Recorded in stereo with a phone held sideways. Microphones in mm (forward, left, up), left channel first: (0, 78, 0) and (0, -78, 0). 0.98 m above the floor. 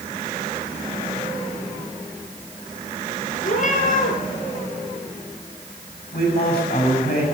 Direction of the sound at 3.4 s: 55° left (ahead or behind).